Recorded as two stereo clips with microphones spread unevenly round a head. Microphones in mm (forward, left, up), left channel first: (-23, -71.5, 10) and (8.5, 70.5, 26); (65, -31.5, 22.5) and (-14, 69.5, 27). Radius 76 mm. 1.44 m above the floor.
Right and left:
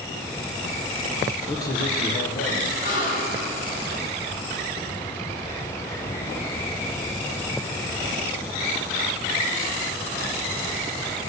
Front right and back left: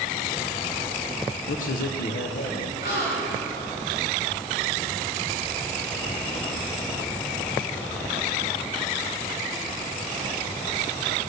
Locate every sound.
1.5 s a man speaking: 25° right, 0.7 m; by 2.7 s 75° right, 1.2 m
2.8 s a gasp: 65° right, 3 m